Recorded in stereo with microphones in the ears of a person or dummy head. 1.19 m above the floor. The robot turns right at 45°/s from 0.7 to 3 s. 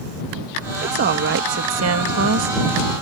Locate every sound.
0.8 s a woman speaking: 140° right; by 2.5 s 60° right